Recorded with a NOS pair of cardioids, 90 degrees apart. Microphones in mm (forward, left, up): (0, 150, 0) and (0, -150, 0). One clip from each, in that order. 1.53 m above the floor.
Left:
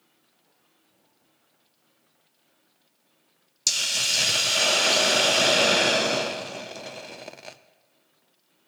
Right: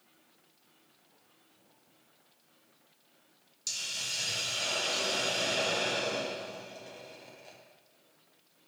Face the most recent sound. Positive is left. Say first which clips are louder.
# left 12 dB
turn(degrees=70)